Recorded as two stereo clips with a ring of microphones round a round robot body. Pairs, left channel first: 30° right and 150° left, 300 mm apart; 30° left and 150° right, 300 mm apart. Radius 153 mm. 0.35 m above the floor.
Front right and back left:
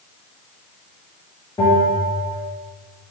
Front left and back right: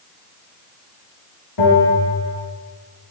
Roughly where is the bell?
Ahead left.